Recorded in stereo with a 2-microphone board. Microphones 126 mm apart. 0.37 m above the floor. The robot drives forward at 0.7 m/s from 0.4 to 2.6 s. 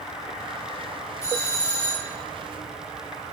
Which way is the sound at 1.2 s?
25° left (ahead or behind).